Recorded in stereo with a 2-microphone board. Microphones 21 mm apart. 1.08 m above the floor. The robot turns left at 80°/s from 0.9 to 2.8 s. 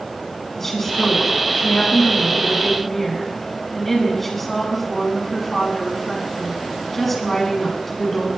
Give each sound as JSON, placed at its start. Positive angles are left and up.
{"t": 0.6, "sound": "a woman speaking", "azimuth_deg": 160, "distance_m": 6.5}